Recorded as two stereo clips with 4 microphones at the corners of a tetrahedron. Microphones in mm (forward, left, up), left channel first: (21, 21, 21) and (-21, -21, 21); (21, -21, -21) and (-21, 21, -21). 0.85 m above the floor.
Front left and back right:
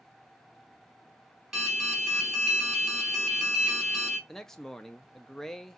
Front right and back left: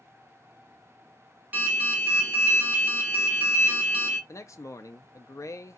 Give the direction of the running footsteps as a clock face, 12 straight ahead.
I don't hear running footsteps.